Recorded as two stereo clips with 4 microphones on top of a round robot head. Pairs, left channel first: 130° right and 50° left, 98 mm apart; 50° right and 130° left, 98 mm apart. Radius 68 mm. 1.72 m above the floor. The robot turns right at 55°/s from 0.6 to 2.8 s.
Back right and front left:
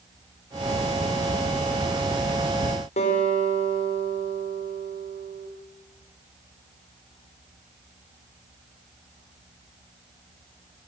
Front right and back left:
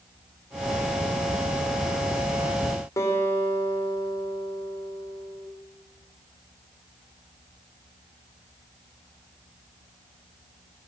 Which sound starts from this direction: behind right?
A guitar, at 3.0 s.